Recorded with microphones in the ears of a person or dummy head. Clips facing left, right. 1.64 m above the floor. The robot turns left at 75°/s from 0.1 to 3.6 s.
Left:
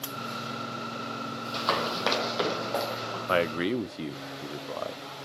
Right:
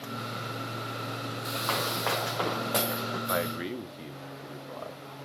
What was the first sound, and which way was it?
Running footsteps, 55° left (ahead or behind).